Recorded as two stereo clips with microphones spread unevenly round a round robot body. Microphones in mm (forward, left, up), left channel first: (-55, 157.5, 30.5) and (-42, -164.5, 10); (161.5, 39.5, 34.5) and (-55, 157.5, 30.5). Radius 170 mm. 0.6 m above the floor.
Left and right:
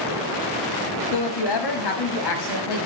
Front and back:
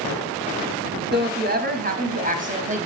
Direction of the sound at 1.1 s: 105° left.